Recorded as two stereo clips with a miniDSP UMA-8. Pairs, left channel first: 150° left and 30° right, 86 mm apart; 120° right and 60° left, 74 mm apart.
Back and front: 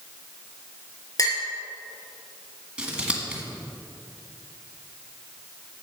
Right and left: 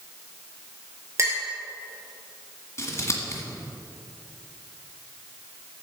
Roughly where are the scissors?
Right.